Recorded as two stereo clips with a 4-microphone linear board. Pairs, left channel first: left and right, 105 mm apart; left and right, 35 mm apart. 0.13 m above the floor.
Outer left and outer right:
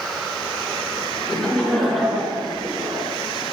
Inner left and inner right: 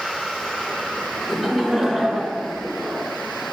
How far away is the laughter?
About 1.0 m.